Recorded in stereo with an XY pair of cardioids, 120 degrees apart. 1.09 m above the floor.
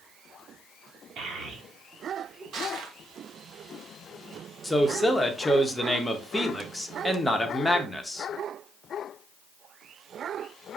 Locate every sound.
1.2 s a child speaking: 60° right, 1.3 m; by 2.4 s 25° right, 1.5 m
2.5 s crushing: 65° right, 0.9 m
4.6 s a man speaking: 5° left, 0.8 m